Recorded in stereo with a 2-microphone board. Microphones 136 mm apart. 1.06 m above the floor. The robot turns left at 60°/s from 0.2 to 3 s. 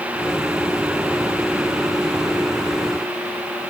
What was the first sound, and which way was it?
Only background noise.